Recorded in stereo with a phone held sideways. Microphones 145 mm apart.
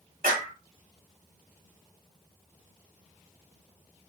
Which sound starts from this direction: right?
A clap, at 0.2 s.